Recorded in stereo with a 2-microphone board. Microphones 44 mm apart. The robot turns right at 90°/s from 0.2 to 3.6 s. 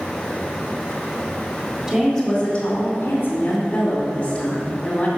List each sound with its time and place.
1.9 s a woman speaking: 5° right, 2 m; by 5.1 s 150° left, 2 m